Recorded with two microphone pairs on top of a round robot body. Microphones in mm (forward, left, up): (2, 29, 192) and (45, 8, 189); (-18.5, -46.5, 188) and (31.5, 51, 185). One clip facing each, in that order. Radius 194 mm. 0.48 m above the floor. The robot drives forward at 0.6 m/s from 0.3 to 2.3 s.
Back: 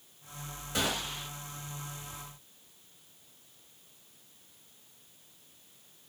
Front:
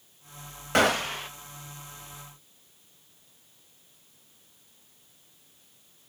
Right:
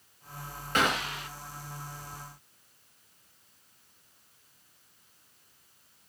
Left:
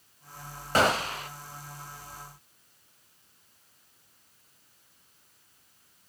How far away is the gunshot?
About 0.8 m.